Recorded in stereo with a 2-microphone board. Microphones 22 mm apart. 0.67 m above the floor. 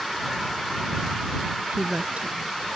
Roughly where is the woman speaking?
Right.